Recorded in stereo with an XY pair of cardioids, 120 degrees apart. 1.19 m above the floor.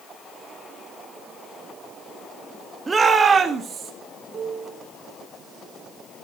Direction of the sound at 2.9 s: 25° right.